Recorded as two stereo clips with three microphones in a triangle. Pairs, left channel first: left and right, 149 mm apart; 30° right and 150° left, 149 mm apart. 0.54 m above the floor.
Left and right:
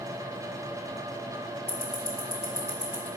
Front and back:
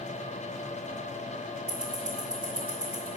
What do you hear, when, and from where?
1.7 s ticking: 110° left, 1.1 m